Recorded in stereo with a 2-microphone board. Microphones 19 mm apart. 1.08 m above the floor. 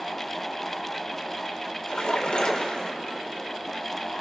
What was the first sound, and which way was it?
A splash, 70° left (ahead or behind).